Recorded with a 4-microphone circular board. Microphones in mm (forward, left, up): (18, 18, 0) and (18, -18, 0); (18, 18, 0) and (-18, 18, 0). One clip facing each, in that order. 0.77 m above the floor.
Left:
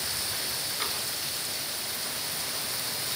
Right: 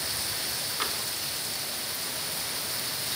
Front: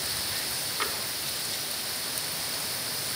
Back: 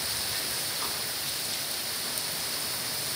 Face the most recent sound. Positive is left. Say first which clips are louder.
# right 2 dB, front 3 dB
turn(degrees=-40)